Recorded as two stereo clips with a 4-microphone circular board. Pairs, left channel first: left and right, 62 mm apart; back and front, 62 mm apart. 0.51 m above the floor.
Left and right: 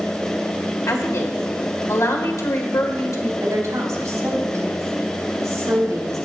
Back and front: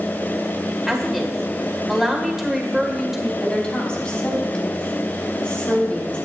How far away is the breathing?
I don't hear breathing.